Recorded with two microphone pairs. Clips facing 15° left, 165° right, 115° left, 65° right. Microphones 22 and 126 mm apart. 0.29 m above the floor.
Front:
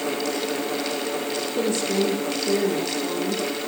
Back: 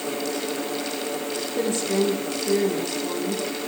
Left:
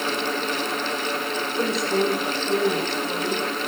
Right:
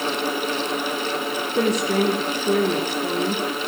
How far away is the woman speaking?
About 9 m.